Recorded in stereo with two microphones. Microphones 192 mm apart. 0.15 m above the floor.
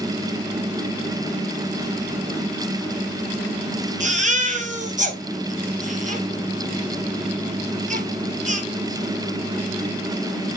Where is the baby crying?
40° right (ahead or behind), 1.7 m.